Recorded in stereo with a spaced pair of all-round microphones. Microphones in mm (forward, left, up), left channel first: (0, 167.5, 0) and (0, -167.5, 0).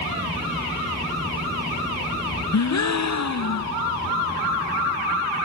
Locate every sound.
2.5 s a gasp: 55° left (ahead or behind), 0.5 m